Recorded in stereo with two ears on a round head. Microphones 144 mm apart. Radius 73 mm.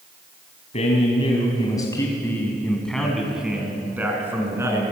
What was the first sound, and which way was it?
A man speaking, 45° left (ahead or behind).